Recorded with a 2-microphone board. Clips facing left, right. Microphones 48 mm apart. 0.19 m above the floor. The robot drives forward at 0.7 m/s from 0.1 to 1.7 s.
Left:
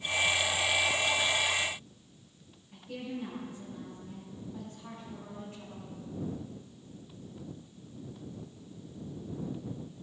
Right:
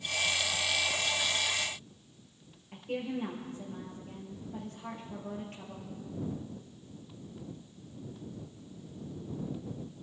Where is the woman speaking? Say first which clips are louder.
Right 4 dB; 55° right (ahead or behind), 5 m.